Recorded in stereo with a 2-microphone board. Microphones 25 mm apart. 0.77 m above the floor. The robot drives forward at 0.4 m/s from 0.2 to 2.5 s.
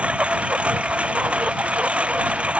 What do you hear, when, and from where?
0.0 s a lawn mower: 55° right (ahead or behind)